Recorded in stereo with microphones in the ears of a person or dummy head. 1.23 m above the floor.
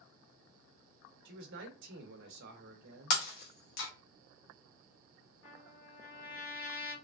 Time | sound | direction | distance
1.2 | a man speaking | 60° right (ahead or behind) | 0.8 m
3.1 | breaking glass | 55° left (ahead or behind) | 0.7 m
5.4 | a trumpet | 80° left | 1.8 m